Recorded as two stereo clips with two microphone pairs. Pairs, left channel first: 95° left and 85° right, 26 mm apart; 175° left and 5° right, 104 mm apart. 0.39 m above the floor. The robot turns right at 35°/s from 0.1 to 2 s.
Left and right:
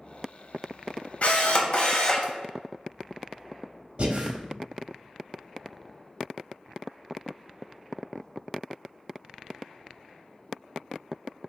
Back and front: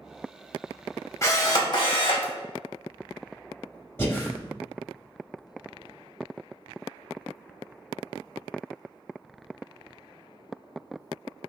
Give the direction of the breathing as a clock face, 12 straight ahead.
4 o'clock.